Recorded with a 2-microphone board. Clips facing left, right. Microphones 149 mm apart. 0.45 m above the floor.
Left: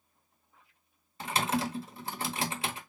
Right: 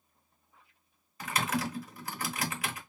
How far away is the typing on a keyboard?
About 0.9 m.